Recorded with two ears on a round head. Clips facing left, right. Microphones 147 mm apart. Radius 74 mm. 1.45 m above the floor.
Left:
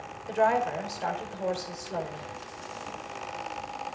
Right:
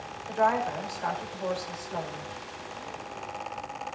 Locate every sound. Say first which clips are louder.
0.3 s a woman speaking: left 1 dB; 25° left (ahead or behind), 5 m